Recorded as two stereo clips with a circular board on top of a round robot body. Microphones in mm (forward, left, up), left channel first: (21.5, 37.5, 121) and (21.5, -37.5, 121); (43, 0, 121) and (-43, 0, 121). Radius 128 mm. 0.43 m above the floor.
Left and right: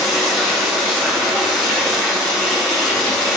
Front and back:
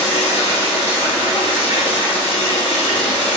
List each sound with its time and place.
0.0 s running water: straight ahead, 0.8 m